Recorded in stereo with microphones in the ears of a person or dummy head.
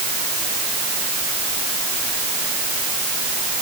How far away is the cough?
I don't hear a cough.